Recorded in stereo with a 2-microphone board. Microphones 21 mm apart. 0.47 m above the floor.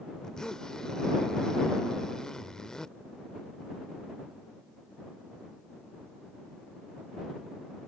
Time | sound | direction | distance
0.2 | a zipper | 35° left (ahead or behind) | ?